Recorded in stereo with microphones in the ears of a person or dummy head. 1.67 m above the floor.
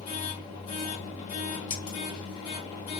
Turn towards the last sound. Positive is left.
turn(degrees=40)  # may be behind; listen again after turning